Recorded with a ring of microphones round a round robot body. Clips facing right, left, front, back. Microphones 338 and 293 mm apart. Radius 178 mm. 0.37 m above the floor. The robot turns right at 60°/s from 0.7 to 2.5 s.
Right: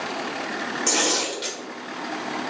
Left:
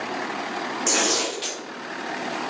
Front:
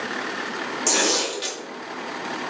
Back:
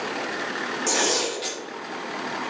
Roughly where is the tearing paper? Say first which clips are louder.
Left 1 dB, front 1 dB; ahead.